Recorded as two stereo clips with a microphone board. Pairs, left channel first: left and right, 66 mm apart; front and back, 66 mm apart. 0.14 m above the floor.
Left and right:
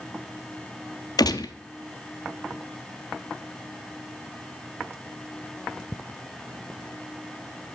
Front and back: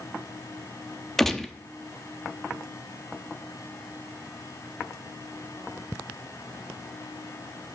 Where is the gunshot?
85° left, 0.5 m.